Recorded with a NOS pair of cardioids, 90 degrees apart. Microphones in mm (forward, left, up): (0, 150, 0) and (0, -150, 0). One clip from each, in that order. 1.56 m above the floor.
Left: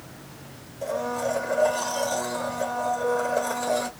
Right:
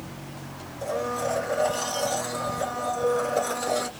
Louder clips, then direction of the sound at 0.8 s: Left 1 dB; 10° right.